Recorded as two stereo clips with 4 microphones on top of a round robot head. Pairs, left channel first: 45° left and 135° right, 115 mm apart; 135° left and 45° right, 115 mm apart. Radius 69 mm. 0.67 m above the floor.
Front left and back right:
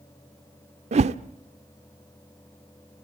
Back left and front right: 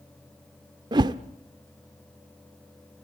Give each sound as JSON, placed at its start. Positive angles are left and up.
{"t": 0.9, "sound": "a whoosh", "azimuth_deg": -105, "distance_m": 0.7}